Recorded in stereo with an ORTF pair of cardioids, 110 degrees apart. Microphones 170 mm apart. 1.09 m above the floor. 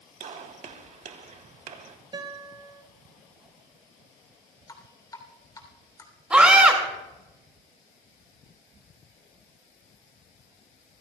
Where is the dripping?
20° left, 3 m.